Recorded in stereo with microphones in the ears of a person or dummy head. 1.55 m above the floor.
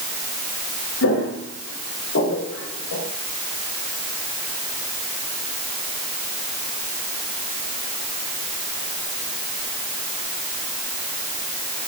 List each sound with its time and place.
1.0 s footsteps: 70° left (ahead or behind), 5 m